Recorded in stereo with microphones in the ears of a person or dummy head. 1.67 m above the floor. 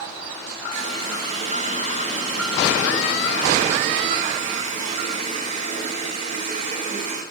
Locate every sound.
0.7 s a running tap: 45° right (ahead or behind), 1.4 m